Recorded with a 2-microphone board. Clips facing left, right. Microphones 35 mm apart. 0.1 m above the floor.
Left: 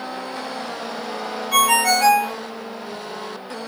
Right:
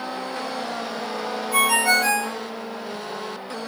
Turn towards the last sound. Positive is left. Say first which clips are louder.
# left 2 dB
turn(degrees=55)  # may be behind; listen again after turning